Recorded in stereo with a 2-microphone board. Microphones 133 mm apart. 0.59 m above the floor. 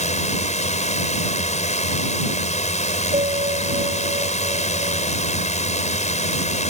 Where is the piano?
50° right (ahead or behind).